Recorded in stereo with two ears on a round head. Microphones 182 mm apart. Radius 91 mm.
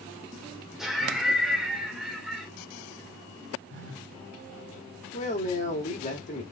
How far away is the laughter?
About 1.1 m.